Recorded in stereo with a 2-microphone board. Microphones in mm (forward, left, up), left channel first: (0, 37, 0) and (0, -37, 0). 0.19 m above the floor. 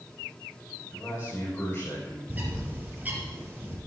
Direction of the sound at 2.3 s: 25° right (ahead or behind).